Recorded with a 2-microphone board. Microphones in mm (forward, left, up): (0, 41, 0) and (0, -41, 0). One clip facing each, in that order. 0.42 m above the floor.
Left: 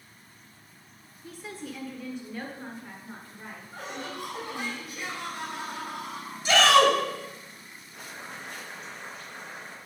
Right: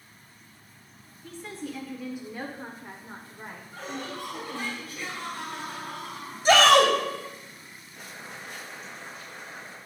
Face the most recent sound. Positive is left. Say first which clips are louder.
# left 1 dB
turn(degrees=55)  # may be behind; listen again after turning